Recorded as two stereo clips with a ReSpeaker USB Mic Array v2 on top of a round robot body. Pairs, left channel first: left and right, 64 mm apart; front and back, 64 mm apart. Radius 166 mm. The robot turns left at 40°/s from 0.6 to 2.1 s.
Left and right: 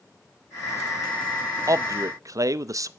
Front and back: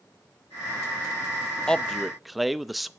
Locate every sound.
1.7 s a man speaking: 75° right, 0.9 m; by 2.9 s 90° right, 0.9 m